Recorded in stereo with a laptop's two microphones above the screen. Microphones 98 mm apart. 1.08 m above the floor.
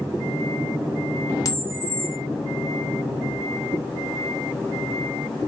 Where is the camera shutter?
35° left (ahead or behind), 0.6 m.